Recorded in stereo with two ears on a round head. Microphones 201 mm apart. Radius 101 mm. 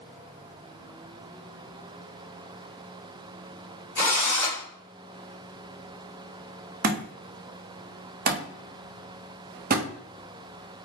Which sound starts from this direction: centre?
A drill, at 4.0 s.